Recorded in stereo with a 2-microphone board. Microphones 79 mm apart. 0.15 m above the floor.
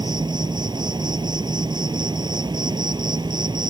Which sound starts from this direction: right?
An insect, at 0.0 s.